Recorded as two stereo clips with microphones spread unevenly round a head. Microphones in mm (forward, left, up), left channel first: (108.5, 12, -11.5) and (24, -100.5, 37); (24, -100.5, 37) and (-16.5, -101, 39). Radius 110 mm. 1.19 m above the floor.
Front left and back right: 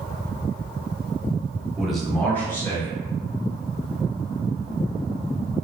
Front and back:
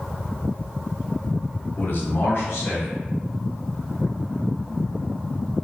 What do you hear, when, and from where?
1.8 s a man speaking: 45° right, 1.0 m; by 3.0 s 15° right, 1.5 m